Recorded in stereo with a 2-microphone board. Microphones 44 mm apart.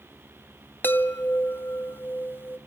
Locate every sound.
0.8 s a chime: 55° left (ahead or behind), 0.8 m